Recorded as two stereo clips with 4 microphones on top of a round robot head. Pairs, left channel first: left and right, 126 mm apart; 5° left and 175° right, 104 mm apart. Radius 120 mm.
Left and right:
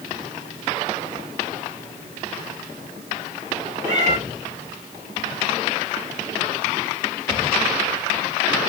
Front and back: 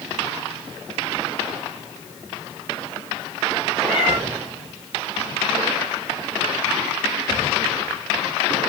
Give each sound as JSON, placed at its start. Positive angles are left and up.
{"t": 3.8, "sound": "a cat meowing", "azimuth_deg": -85, "distance_m": 0.9}